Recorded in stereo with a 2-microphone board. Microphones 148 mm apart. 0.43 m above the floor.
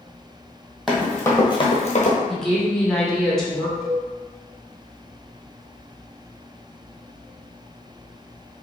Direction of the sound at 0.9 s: Centre (ahead or behind).